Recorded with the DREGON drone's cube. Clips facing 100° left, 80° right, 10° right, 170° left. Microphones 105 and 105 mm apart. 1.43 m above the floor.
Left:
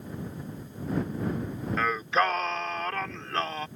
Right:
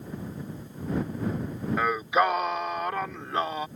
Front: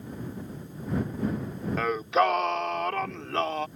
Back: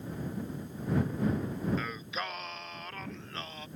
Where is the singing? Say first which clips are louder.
Right 2 dB, front 14 dB; 5° right.